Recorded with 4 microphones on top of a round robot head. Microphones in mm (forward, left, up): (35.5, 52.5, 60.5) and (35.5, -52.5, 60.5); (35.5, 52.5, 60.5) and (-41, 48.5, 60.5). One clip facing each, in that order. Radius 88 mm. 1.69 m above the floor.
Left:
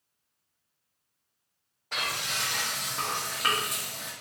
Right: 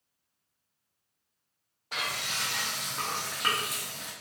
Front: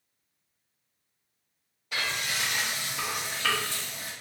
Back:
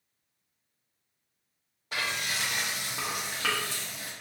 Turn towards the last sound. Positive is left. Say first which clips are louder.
# left 2 dB, front 1 dB
turn(degrees=-165)